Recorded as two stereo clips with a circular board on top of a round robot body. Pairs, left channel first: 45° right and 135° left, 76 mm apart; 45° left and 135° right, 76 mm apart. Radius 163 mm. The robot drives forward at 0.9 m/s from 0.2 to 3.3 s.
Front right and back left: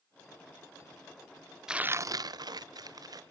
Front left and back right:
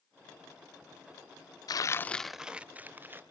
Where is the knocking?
No knocking in this recording.